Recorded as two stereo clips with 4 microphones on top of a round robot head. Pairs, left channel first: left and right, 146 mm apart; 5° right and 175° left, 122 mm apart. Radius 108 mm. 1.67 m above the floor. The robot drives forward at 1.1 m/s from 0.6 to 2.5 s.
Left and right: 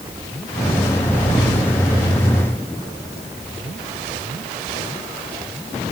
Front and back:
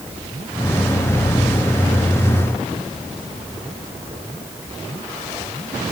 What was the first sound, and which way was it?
Only background noise.